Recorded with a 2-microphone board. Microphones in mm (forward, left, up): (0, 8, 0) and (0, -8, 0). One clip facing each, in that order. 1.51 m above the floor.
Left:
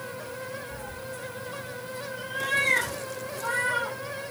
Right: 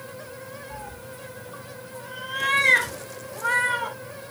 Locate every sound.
0.7 s a cat meowing: 45° right (ahead or behind), 1.4 m; by 4.0 s 80° right, 5.5 m